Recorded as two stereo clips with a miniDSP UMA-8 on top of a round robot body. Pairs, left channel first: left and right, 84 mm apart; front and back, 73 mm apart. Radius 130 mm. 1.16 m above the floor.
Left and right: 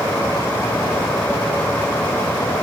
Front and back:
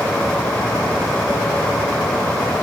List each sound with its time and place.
Only background noise.